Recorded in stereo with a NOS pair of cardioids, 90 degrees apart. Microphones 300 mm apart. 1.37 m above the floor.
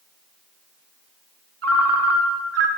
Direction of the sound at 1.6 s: 55° right.